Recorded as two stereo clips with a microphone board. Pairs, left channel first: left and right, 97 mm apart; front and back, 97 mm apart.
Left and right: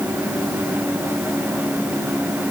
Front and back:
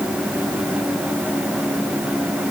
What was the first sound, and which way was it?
Only background noise.